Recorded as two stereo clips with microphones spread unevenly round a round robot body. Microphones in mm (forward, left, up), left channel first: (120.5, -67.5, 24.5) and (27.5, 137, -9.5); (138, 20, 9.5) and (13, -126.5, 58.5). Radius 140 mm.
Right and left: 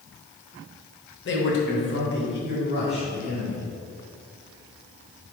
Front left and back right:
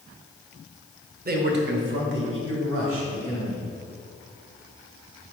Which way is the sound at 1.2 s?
95° right.